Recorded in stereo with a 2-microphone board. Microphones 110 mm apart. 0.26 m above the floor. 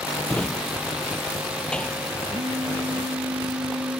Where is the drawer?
10° left (ahead or behind).